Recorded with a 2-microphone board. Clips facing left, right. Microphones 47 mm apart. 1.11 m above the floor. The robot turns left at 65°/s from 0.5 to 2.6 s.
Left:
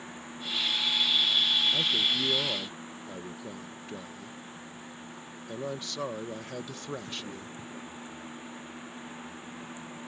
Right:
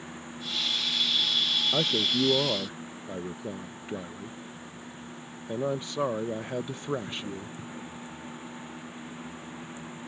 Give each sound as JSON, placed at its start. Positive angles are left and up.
{"t": 1.7, "sound": "a man speaking", "azimuth_deg": -95}